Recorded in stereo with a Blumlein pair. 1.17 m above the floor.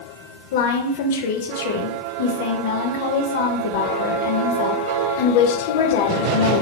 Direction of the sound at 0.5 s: 55° left.